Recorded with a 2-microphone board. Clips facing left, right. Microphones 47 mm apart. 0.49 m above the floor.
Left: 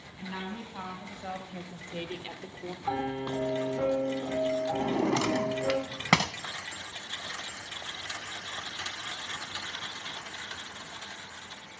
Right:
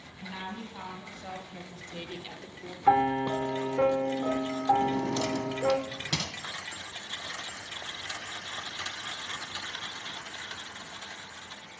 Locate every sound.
0.2 s a woman speaking: 15° left (ahead or behind), 4.5 m; by 2.8 s 20° left (ahead or behind), 1.1 m
2.9 s a piano: 40° right (ahead or behind), 1.9 m
4.8 s a drawer: 75° left (ahead or behind), 0.9 m